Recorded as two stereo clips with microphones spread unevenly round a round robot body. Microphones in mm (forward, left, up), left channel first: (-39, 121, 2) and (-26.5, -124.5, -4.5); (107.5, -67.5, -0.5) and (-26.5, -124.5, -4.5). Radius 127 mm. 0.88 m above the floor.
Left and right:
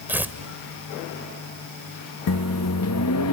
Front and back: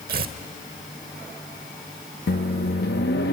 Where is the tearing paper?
170° right, 1.0 m.